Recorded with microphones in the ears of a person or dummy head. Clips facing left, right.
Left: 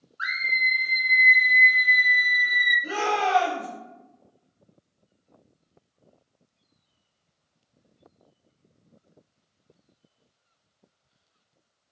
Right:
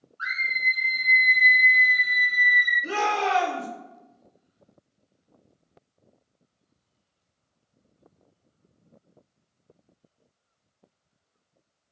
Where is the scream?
25° left (ahead or behind), 0.7 m; by 2.7 s 70° right (ahead or behind), 1.5 m.